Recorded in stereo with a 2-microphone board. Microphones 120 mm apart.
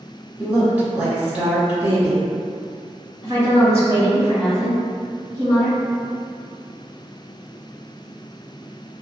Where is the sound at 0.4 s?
15° right (ahead or behind), 1.2 m.